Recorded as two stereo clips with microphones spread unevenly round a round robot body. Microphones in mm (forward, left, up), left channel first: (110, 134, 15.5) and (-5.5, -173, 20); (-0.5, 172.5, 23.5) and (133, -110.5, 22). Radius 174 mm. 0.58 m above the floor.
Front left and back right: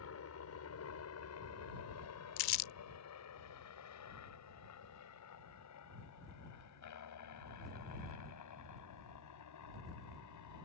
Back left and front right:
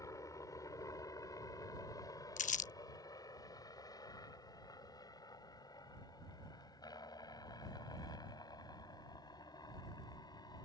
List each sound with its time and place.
0.0 s a helicopter: 40° left
2.4 s crumpling: 45° left